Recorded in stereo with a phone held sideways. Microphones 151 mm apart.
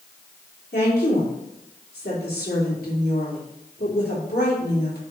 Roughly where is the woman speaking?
Left.